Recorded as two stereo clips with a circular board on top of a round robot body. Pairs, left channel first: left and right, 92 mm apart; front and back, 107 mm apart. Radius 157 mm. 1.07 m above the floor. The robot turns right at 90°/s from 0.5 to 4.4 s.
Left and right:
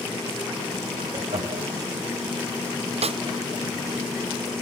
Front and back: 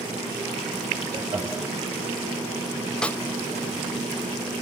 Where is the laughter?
145° right, 3 m; by 1.7 s 95° right, 3 m.